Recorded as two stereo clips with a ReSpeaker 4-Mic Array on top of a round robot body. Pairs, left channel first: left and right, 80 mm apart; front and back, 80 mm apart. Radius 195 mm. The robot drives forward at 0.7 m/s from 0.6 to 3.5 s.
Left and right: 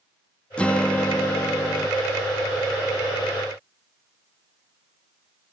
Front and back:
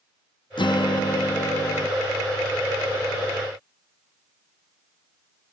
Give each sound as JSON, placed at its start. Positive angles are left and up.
{"t": 0.6, "sound": "a guitar", "azimuth_deg": 15}